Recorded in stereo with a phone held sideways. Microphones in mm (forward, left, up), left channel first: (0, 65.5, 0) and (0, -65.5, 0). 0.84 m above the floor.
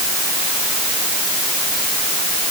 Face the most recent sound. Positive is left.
No sound to turn to.